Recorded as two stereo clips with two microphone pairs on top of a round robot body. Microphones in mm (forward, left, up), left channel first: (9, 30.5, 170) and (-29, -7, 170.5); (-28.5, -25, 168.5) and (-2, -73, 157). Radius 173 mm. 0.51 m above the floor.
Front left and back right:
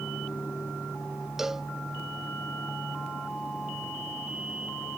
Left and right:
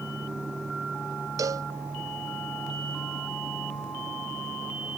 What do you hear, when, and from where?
1.4 s a cowbell: 50° right